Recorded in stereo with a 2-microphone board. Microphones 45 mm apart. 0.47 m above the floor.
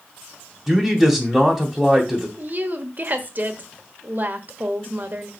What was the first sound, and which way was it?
A man speaking, centre (ahead or behind).